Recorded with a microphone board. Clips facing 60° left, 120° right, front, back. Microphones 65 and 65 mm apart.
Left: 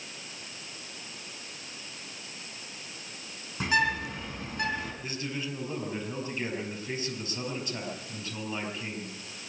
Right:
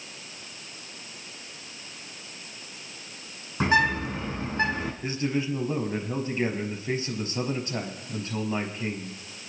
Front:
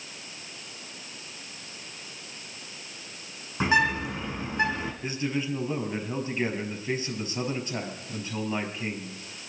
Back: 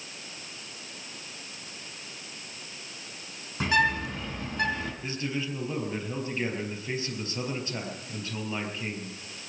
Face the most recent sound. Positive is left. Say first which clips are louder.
# right 8 dB, front 5 dB
turn(degrees=-75)